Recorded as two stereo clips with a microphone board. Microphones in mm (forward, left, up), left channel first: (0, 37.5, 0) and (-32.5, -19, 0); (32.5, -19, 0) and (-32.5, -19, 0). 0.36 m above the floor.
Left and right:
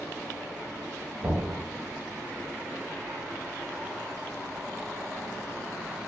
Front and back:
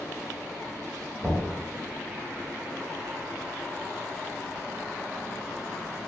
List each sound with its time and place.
1.2 s knocking: 105° right, 1.2 m